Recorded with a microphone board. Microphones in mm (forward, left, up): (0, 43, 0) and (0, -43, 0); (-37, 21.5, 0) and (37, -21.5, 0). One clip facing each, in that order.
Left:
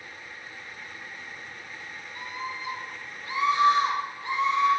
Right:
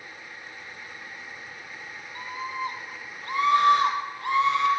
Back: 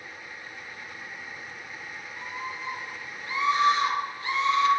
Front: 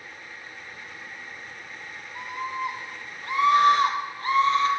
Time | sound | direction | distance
2.1 | a scream | 45° right | 4 m